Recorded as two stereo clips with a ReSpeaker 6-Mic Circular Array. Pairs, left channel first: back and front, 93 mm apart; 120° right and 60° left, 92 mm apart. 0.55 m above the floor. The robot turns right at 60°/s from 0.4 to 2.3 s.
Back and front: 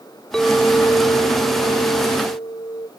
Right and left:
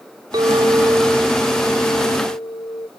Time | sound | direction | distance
0.3 | a clink | 100° left | 1.1 m